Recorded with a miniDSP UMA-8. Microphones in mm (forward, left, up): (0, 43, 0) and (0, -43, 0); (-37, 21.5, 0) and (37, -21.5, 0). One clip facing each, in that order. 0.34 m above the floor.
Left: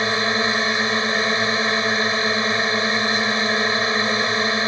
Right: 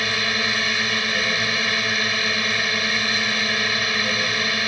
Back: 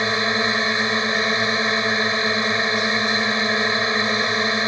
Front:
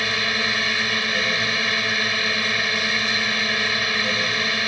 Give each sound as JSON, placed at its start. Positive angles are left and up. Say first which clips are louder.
{"t": 0.0, "sound": "a drone", "louder": "left 4 dB, back 4 dB", "azimuth_deg": 115}